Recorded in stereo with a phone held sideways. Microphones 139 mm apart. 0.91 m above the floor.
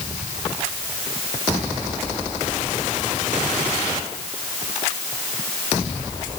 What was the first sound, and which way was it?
Only background noise.